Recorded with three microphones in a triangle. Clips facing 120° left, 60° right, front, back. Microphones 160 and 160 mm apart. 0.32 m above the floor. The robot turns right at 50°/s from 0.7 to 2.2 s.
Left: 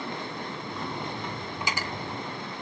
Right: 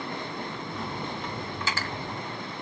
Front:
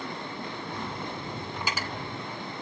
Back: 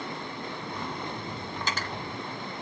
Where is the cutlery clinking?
65° left, 0.5 m; by 1.9 s 80° left, 0.5 m.